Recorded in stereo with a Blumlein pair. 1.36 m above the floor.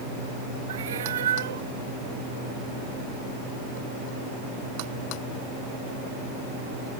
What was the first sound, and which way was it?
A cat meowing, 60° right.